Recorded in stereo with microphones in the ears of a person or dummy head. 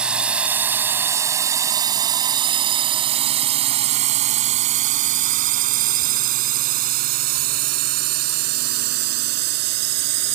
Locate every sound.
0.0 s a drone: 5° right (ahead or behind); by 10.3 s 60° right (ahead or behind)